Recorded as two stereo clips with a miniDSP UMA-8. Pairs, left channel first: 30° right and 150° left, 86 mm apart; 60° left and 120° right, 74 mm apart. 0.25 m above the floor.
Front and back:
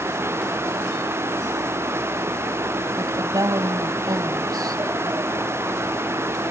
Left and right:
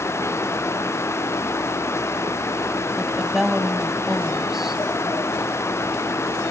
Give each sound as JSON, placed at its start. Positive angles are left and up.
{"t": 3.0, "sound": "a woman speaking", "azimuth_deg": 160, "distance_m": 1.7}